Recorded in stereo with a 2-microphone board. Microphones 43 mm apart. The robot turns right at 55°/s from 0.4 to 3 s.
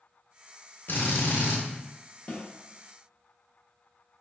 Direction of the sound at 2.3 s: 30° left (ahead or behind).